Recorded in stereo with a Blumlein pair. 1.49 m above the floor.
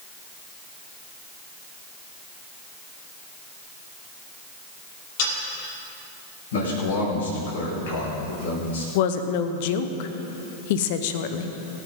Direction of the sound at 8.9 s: 50° left.